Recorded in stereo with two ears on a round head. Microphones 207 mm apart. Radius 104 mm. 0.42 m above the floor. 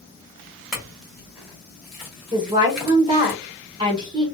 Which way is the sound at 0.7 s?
Centre (ahead or behind).